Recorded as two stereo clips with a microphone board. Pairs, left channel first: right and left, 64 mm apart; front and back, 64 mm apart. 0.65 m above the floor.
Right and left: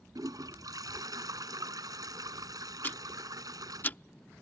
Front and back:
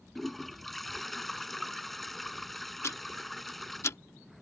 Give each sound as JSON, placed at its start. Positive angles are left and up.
{"t": 0.1, "sound": "a toilet flushing", "azimuth_deg": 85}
{"t": 2.8, "sound": "ticking", "azimuth_deg": -35}